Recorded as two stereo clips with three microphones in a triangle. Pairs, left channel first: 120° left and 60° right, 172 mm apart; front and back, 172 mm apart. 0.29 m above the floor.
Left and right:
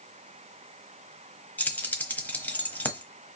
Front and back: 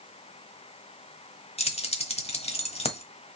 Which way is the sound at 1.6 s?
45° left.